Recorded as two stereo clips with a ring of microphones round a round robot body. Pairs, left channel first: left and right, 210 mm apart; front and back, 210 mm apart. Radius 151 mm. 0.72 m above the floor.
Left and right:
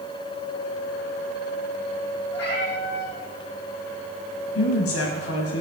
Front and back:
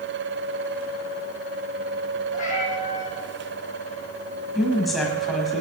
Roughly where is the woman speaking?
Left.